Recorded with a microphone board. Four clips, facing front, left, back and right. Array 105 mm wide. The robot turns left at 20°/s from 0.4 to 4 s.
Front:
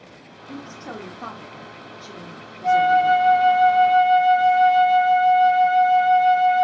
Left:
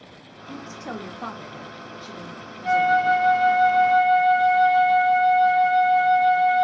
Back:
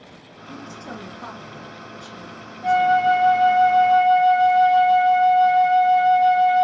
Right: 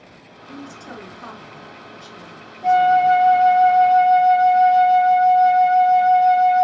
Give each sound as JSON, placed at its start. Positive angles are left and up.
{"t": 0.5, "sound": "a woman speaking", "azimuth_deg": 70, "distance_m": 0.6}
{"t": 2.6, "sound": "a flute", "azimuth_deg": -120, "distance_m": 1.1}